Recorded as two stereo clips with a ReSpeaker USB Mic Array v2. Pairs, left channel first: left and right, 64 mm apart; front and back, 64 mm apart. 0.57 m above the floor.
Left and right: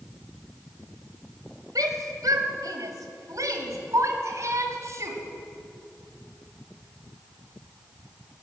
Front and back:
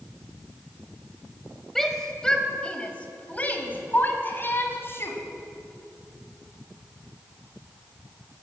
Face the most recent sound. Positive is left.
turn(degrees=-50)